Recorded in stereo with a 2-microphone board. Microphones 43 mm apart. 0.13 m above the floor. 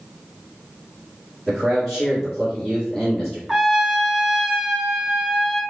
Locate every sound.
1.5 s a man speaking: 5° right (ahead or behind), 1.5 m
3.5 s a trumpet: 10° right (ahead or behind), 0.5 m